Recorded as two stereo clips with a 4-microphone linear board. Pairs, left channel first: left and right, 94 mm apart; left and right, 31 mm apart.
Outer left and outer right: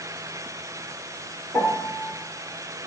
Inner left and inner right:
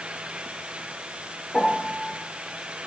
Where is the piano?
20° left (ahead or behind), 2 m.